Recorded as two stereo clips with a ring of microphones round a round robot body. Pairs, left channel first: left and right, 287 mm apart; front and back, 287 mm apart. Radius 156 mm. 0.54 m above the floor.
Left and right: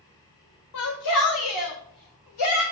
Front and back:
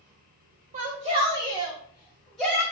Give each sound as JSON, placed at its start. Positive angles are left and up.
{"t": 0.7, "sound": "a shout", "azimuth_deg": 115, "distance_m": 1.5}